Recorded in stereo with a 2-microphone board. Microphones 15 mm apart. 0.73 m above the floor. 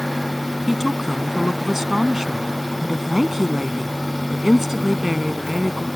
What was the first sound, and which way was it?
A woman speaking, 25° right (ahead or behind).